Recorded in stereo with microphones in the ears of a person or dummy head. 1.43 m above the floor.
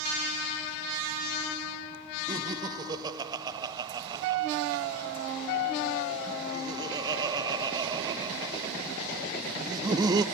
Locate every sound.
2.3 s laughter: 20° right (ahead or behind), 0.8 m